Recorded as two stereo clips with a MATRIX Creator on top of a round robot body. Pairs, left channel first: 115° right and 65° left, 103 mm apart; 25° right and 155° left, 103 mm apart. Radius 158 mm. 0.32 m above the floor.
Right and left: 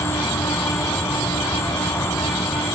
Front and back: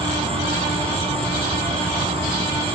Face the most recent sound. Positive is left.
turn(degrees=180)